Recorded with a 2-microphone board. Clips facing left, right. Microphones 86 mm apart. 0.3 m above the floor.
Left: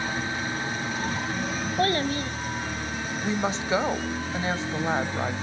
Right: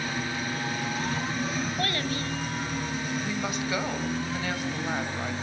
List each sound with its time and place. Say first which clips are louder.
1.8 s a child speaking: left 5 dB; 30° left (ahead or behind), 1.1 m
3.2 s a woman speaking: left 3 dB; 30° left (ahead or behind), 2 m